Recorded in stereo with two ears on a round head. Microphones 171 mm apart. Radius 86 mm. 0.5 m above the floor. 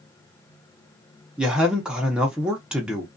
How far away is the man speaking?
About 0.7 m.